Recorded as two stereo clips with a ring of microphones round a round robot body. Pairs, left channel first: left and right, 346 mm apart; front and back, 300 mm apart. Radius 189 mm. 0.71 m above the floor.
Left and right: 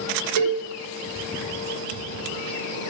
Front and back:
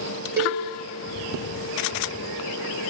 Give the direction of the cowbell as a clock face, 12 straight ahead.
3 o'clock.